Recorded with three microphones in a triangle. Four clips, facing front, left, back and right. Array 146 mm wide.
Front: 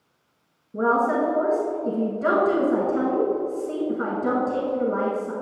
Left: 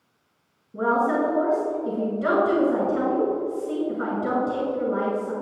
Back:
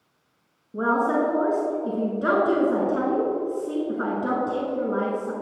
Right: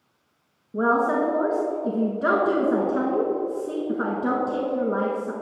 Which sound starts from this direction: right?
A woman speaking, at 0.7 s.